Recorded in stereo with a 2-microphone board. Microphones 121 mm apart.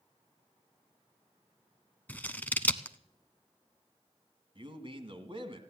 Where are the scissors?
15° left (ahead or behind), 0.6 m.